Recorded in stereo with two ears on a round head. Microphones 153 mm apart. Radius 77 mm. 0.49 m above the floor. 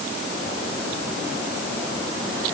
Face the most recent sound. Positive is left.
No sound to turn to.